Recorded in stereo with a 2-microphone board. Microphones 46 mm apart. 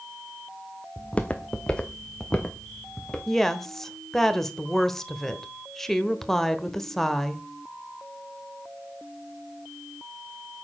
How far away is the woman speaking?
About 1.1 m.